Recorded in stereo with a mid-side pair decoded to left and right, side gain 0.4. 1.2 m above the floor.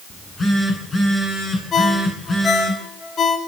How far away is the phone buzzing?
About 10 m.